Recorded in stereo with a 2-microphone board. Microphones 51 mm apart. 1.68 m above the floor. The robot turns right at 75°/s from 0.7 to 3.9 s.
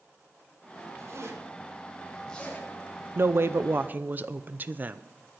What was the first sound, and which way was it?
A zipper, 80° right.